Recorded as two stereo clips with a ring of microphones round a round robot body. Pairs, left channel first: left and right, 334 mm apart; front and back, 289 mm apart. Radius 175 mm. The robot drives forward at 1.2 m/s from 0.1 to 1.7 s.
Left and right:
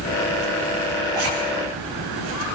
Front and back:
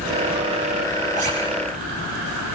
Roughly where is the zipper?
Right.